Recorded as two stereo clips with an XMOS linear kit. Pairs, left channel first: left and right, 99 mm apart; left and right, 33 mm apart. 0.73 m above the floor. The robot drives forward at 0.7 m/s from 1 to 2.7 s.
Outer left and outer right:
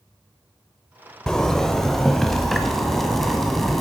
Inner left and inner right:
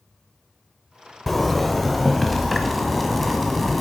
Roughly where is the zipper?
Centre.